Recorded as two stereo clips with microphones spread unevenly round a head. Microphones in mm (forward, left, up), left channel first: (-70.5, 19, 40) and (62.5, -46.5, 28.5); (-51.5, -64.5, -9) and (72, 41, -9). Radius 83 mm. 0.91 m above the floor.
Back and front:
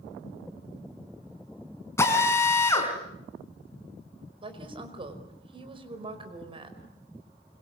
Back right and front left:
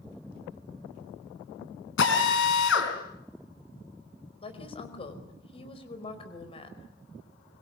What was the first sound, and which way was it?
A drill, 135° right.